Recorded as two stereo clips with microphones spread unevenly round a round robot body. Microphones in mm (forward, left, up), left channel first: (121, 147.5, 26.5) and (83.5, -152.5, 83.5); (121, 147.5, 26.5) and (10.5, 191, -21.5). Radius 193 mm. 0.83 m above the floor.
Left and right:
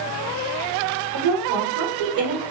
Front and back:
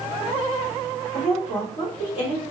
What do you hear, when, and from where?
1.1 s a woman speaking: 90° right, 1.3 m